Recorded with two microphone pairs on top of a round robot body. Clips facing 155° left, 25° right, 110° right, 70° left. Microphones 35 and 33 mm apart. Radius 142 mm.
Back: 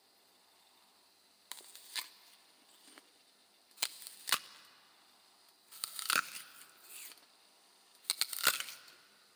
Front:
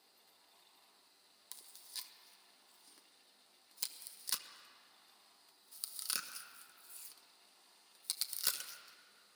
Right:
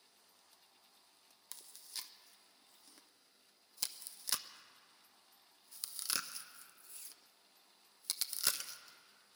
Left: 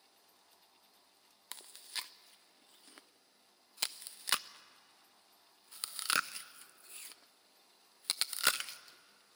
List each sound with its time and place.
1.5 s chewing: 105° left, 0.6 m